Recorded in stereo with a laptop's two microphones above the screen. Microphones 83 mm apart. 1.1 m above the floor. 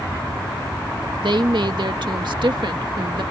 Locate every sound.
1.2 s a woman speaking: 70° right (ahead or behind)